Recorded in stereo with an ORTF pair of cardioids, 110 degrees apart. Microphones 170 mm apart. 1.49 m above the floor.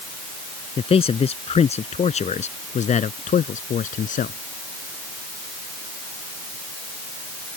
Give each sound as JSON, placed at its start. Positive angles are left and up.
{"t": 0.8, "sound": "a man speaking", "azimuth_deg": 35}